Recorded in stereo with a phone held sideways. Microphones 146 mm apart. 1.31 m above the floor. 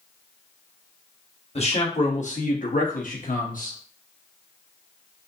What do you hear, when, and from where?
1.6 s a man speaking: 45° left (ahead or behind), 1.2 m; by 3.8 s 65° left (ahead or behind), 1.0 m